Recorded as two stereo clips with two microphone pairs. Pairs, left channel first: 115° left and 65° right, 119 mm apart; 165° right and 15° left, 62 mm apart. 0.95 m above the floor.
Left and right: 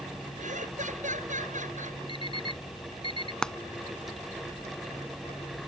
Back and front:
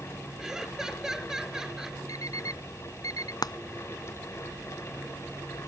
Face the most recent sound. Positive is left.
turn(degrees=-160)